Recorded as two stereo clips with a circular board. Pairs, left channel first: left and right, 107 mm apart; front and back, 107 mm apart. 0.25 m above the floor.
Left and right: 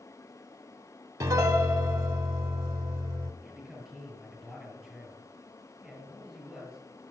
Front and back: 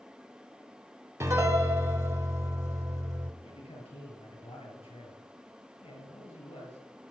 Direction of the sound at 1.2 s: 130° right.